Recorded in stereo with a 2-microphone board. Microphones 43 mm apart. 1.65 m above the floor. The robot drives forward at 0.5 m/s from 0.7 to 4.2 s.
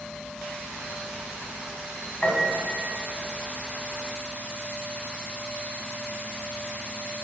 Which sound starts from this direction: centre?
A piano, at 2.2 s.